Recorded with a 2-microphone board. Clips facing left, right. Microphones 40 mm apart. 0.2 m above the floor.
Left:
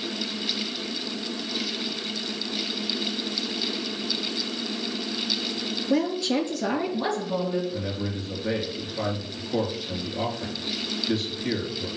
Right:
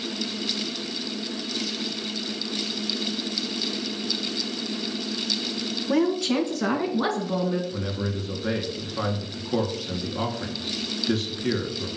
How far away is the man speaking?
About 2.5 m.